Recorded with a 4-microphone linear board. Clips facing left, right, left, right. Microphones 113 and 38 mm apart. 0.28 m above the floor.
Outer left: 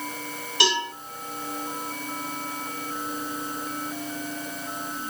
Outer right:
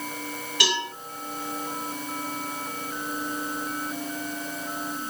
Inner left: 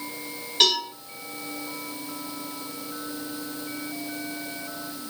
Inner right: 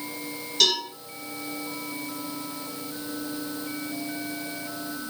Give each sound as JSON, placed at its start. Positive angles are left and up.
{"t": 0.6, "sound": "a cowbell", "side_deg": 30, "distance_m": 1.9}